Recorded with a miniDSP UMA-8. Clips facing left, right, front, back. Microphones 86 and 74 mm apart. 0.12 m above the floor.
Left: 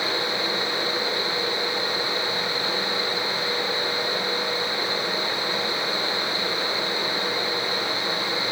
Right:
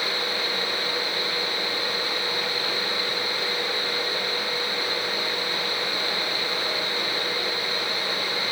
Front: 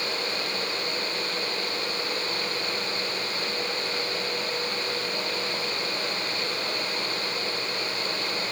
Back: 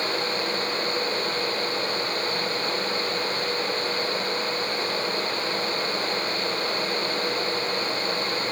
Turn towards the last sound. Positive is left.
No sound to turn to.